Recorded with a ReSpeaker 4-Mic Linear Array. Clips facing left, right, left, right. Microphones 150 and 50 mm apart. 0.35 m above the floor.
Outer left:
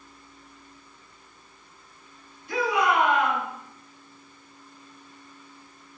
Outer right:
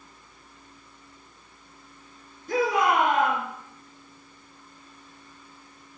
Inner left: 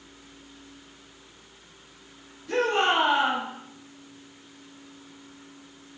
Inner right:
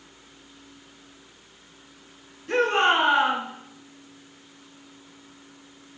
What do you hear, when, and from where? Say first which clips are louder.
2.5 s a shout: outer right 1 dB, inner right 3 dB; 45° right (ahead or behind), 4 m